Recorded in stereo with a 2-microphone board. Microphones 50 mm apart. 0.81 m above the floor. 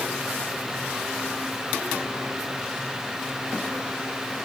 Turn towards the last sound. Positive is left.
No sound to turn to.